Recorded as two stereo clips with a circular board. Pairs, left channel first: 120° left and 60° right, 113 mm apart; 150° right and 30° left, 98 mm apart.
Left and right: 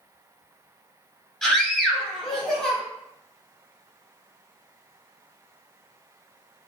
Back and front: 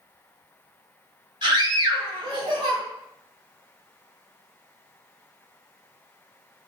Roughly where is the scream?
Ahead left.